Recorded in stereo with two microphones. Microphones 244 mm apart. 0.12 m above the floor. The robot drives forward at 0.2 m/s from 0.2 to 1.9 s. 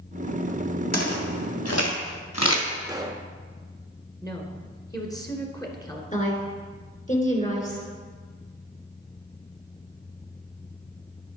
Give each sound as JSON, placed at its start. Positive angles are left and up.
{"t": 0.9, "sound": "footsteps", "side_deg": 75, "distance_m": 3.0}
{"t": 2.8, "sound": "a pop", "side_deg": -15, "distance_m": 0.9}
{"t": 4.2, "sound": "a woman speaking", "side_deg": 15, "distance_m": 1.5}
{"t": 6.1, "sound": "a woman speaking", "side_deg": 30, "distance_m": 2.0}